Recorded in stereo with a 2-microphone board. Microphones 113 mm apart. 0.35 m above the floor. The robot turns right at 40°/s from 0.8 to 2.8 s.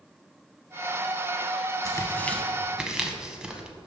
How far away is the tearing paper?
About 0.7 m.